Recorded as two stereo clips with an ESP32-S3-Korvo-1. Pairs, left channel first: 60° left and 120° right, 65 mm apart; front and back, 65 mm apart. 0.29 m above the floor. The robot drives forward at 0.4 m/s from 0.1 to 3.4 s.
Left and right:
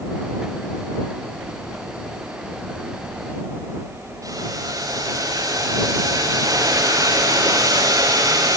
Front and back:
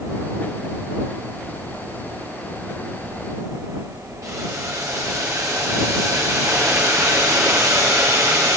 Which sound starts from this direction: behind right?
Boiling, at 4.2 s.